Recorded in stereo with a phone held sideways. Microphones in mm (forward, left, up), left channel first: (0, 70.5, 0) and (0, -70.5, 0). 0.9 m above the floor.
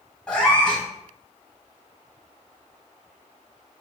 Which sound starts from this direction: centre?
A cat meowing, at 0.3 s.